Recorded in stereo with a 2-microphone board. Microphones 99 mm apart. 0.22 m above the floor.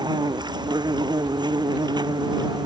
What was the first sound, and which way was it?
An insect, 50° right (ahead or behind).